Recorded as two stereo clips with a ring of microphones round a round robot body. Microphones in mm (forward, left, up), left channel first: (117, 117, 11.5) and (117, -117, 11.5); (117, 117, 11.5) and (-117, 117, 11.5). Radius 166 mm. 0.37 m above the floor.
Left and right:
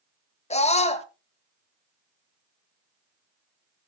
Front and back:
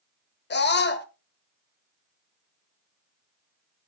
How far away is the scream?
About 1.5 m.